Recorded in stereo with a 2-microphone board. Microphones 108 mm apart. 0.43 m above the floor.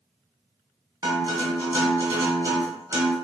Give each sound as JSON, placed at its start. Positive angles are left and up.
{"t": 1.0, "sound": "a guitar", "side_deg": -35, "distance_m": 1.4}